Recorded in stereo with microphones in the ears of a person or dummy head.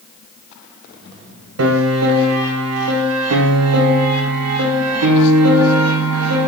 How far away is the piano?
About 0.7 m.